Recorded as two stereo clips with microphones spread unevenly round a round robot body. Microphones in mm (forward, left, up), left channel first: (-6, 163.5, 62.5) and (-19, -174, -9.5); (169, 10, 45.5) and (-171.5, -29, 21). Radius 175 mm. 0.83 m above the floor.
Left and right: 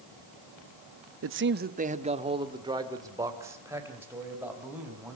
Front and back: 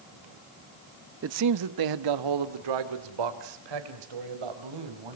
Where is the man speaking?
125° right, 0.8 m; by 5.2 s 175° right, 5.5 m.